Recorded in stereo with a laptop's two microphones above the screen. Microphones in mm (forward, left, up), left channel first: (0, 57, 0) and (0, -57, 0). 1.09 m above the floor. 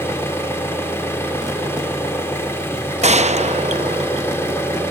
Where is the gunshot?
65° right (ahead or behind), 0.7 m.